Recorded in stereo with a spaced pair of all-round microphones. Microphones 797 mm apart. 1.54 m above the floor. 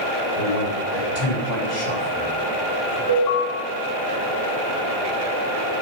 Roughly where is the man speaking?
Left.